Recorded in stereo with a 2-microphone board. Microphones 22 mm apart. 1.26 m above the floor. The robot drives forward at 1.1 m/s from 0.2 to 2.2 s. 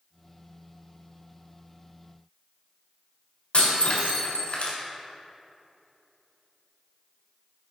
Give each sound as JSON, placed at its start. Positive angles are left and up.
{"t": 3.5, "sound": "breaking glass", "side_deg": 55, "distance_m": 3.5}